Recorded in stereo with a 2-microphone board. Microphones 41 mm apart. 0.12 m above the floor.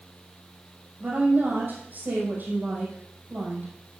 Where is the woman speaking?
50° right (ahead or behind), 4 m.